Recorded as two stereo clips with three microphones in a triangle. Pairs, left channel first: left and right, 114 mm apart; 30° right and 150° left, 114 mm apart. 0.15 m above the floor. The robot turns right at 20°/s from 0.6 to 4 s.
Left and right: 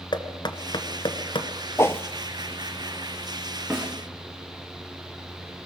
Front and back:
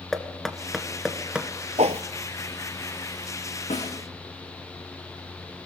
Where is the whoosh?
155° left, 0.7 m; by 2.0 s 160° left, 0.7 m.